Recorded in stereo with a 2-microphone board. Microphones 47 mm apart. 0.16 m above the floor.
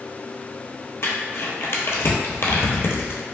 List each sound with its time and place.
1.0 s crumpling: 60° left (ahead or behind), 0.6 m